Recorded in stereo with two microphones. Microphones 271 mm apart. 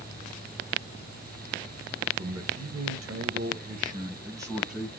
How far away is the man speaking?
About 1.1 m.